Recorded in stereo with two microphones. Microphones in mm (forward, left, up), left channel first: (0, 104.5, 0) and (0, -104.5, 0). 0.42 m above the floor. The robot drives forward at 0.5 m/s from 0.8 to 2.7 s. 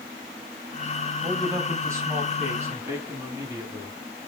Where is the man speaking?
15° right (ahead or behind), 3 m; by 4.0 s 10° right (ahead or behind), 3.5 m.